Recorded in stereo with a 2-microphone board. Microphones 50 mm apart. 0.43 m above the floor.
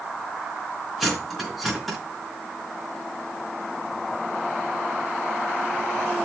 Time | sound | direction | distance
1.0 | cutlery clinking | centre (ahead or behind) | 3.5 m